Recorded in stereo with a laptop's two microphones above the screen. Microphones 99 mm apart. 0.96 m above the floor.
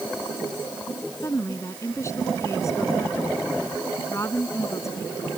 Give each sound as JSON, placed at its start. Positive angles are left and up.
{"t": 1.2, "sound": "a woman speaking", "side_deg": 30}